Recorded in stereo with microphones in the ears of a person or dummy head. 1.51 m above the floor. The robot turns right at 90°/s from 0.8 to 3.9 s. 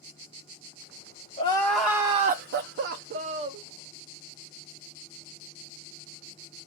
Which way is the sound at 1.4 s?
145° left.